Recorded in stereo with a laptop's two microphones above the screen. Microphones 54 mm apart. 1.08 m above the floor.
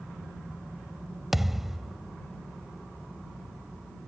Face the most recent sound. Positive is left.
turn(degrees=-5)  # may be behind; listen again after turning